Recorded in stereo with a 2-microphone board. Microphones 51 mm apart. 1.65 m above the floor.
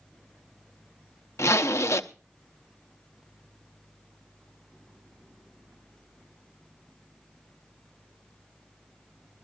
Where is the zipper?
65° left (ahead or behind), 0.9 m.